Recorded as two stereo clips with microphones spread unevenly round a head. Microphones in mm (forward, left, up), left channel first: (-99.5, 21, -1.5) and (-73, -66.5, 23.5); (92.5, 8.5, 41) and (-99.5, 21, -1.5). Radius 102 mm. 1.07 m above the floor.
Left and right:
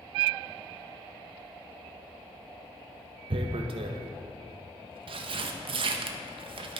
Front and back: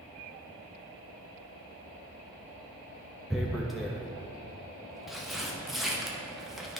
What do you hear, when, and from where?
3.3 s tearing paper: 90° right, 0.5 m